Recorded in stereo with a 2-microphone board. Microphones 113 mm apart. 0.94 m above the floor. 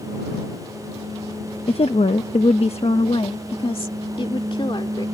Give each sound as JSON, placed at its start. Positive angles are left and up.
{"t": 1.7, "sound": "a woman speaking", "side_deg": 60}